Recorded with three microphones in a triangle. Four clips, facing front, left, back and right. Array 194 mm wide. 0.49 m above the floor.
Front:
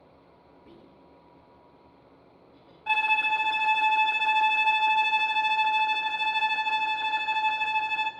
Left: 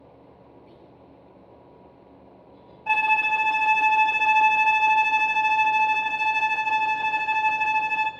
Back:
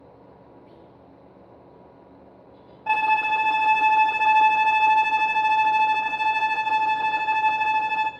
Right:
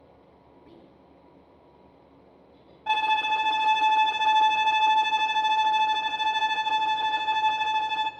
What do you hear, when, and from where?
0.7 s whispering: 15° right, 4 m
2.9 s a violin: 170° right, 0.6 m